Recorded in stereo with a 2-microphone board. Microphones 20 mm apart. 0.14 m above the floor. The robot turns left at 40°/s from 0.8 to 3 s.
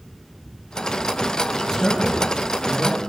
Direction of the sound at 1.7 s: 30° left (ahead or behind).